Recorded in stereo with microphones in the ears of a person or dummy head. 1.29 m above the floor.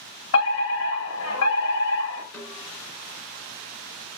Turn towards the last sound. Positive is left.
turn(degrees=10)  # may be behind; listen again after turning